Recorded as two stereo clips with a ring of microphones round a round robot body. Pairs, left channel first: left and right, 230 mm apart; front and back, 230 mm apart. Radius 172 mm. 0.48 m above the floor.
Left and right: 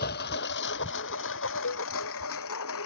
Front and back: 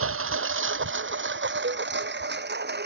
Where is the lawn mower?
150° left; by 2.9 s 135° left.